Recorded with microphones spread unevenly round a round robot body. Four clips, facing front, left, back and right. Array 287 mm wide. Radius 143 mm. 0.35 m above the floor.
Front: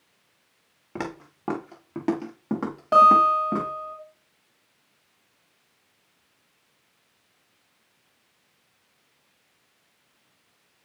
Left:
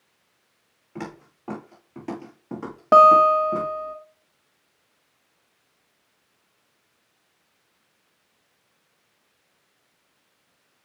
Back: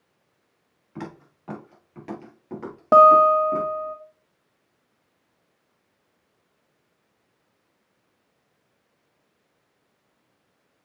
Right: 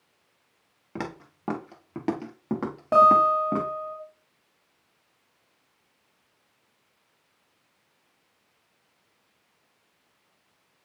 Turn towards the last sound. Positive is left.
turn(degrees=155)